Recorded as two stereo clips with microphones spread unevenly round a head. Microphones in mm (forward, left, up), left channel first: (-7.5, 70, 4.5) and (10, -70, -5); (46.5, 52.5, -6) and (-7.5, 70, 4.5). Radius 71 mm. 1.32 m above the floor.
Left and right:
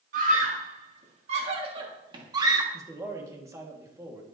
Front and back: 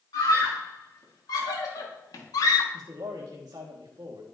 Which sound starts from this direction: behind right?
A man speaking, at 2.7 s.